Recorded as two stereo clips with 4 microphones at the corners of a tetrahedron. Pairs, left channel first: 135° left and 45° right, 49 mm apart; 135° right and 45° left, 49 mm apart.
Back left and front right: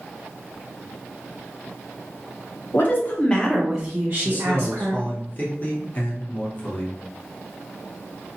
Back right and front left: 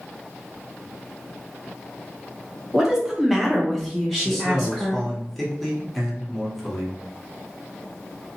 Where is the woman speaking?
125° left, 1.0 m; by 5.0 s 50° right, 1.5 m.